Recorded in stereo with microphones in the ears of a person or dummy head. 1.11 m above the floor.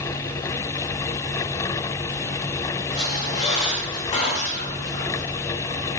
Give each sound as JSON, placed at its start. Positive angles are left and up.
{"t": 2.9, "sound": "a squeak", "side_deg": 40, "distance_m": 0.8}